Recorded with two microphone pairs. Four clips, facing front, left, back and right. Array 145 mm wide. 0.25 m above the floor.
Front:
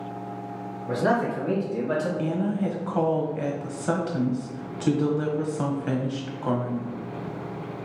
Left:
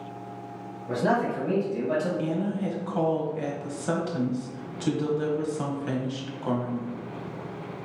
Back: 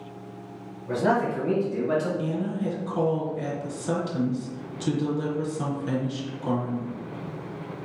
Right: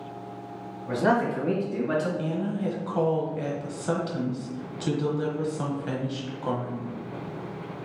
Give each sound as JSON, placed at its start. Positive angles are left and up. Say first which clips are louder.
{"t": 0.9, "sound": "a man speaking", "louder": "right 1 dB, even", "azimuth_deg": -65, "distance_m": 1.8}
{"t": 2.2, "sound": "a woman speaking", "louder": "left 1 dB, front 2 dB", "azimuth_deg": -10, "distance_m": 1.1}